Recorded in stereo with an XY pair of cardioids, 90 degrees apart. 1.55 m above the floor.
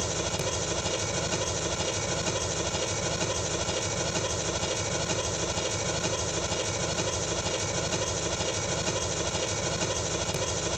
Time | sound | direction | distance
0.0 | an engine running | 5° right | 1.3 m